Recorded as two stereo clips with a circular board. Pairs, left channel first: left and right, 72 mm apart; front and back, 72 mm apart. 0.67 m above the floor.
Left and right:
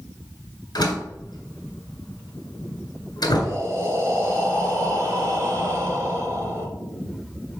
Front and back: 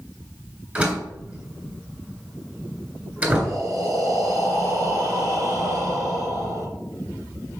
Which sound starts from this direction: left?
A door slam, at 0.8 s.